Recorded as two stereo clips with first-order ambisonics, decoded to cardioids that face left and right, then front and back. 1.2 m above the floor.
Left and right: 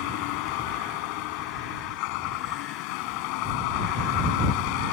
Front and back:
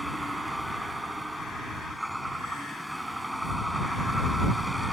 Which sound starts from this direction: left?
A vehicle, at 0.0 s.